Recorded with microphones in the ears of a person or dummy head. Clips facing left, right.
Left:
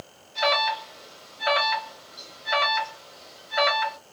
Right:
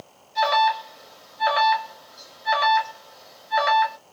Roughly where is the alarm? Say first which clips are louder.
Right 4 dB; centre.